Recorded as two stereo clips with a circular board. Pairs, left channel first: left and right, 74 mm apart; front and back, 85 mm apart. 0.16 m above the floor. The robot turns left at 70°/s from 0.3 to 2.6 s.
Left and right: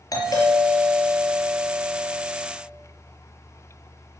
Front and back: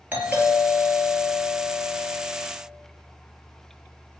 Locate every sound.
0.1 s a doorbell: 115° left, 4 m; by 2.5 s 40° right, 4 m